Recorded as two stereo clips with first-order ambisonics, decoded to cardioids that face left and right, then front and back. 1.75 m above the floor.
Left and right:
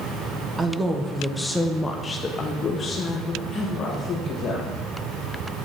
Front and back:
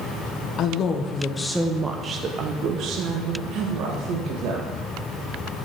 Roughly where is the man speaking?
Ahead.